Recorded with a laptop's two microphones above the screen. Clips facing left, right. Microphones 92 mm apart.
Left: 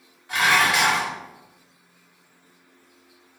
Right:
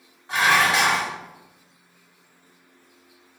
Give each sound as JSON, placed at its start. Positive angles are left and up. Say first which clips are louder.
{"t": 0.3, "sound": "dishes clattering", "louder": "right 1 dB", "side_deg": -30, "distance_m": 1.7}